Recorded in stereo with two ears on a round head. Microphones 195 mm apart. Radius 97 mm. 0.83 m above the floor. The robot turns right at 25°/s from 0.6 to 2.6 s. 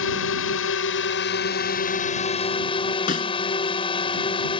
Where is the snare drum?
40° left (ahead or behind).